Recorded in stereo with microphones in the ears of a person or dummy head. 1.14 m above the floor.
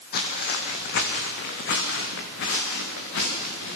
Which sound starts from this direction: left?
Footsteps, at 0.1 s.